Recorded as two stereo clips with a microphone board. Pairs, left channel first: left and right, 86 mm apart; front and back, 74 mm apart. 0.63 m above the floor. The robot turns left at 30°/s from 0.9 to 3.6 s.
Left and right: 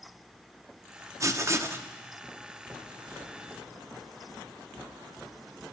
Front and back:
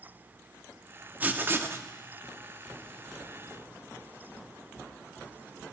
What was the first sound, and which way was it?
Writing, 125° right.